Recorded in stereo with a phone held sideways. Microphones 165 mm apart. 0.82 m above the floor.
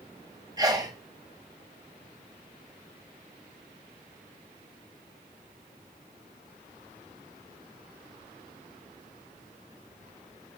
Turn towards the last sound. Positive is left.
turn(degrees=-20)  # may be behind; listen again after turning